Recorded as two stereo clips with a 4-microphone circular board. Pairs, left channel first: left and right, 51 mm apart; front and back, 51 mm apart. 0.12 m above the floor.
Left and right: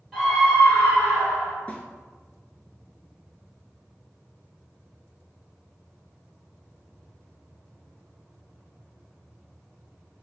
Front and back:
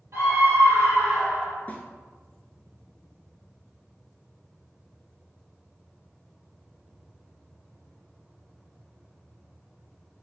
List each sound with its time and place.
0.1 s a scream: 170° left, 1.6 m; by 1.6 s 90° left, 1.2 m
1.7 s a snare drum: 40° left, 0.5 m